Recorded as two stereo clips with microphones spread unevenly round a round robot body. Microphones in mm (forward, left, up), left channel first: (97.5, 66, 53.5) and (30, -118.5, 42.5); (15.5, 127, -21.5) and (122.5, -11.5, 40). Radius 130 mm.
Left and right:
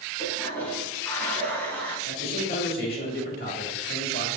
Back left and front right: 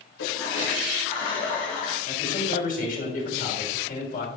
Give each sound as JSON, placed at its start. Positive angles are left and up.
{"t": 0.2, "sound": "a toilet flushing", "azimuth_deg": 150, "distance_m": 2.0}
{"t": 2.0, "sound": "a man speaking", "azimuth_deg": 115, "distance_m": 3.0}